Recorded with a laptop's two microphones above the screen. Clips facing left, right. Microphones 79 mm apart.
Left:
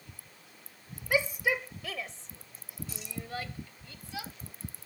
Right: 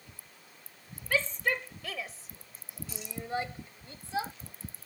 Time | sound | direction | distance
1.1 | a shout | 15° left (ahead or behind) | ?